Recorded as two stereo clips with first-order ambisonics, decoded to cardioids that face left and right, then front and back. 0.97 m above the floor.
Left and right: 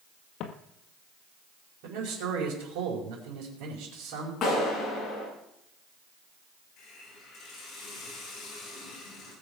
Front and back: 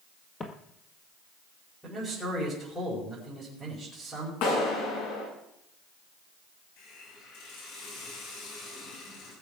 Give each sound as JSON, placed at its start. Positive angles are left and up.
{"t": 0.4, "sound": "footsteps", "azimuth_deg": 65, "distance_m": 1.6}
{"t": 1.8, "sound": "a man speaking", "azimuth_deg": -85, "distance_m": 5.0}
{"t": 4.4, "sound": "a clap", "azimuth_deg": 25, "distance_m": 8.0}
{"t": 6.8, "sound": "a hiss", "azimuth_deg": 30, "distance_m": 7.0}